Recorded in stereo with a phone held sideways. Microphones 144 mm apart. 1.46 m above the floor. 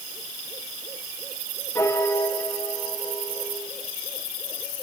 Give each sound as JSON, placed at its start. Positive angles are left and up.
{"t": 1.8, "sound": "a piano", "side_deg": 20, "distance_m": 2.5}